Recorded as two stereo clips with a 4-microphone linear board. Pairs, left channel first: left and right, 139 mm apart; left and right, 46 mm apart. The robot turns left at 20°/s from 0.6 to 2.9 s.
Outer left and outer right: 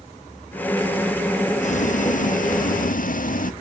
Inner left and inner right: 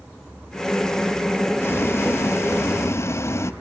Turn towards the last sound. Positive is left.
turn(degrees=75)  # may be behind; listen again after turning